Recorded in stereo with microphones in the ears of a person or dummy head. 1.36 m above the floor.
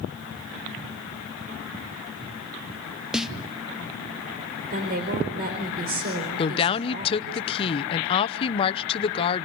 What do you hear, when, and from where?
3.1 s a snare drum: 5° right (ahead or behind), 0.7 m
4.7 s a woman speaking: 45° right (ahead or behind), 4 m
6.4 s a woman speaking: 30° left (ahead or behind), 0.8 m